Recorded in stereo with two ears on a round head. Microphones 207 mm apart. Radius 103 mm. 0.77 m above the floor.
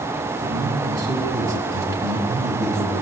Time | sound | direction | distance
0.4 | a man speaking | 15° right (ahead or behind) | 5 m